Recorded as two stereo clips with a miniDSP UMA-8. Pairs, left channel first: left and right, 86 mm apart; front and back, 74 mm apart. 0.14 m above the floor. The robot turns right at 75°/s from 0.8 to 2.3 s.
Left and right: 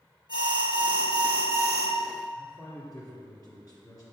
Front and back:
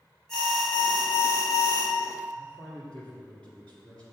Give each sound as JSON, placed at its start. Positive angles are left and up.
{"t": 0.3, "sound": "an alarm", "azimuth_deg": -85, "distance_m": 2.5}
{"t": 2.3, "sound": "a man speaking", "azimuth_deg": 70, "distance_m": 2.5}